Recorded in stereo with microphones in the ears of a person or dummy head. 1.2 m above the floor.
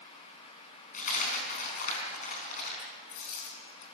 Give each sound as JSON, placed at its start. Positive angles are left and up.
{"t": 0.9, "sound": "a dropped coin", "side_deg": 45, "distance_m": 4.5}